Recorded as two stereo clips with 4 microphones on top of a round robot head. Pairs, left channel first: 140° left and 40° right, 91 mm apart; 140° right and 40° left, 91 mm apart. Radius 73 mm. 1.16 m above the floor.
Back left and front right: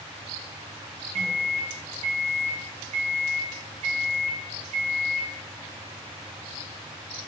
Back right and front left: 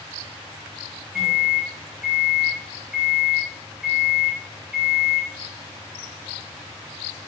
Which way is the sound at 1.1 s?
50° right.